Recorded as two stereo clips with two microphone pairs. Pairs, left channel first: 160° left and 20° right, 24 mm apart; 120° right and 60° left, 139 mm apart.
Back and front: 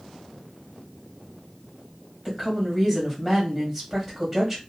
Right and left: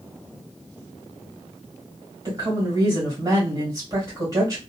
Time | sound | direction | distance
2.2 | a woman speaking | 45° left | 1.6 m